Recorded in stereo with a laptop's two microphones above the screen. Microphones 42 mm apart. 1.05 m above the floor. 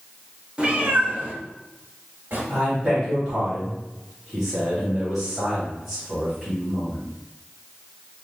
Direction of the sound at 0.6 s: 25° right (ahead or behind).